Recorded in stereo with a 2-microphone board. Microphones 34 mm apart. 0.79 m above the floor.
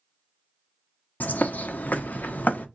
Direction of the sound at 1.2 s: 60° left (ahead or behind).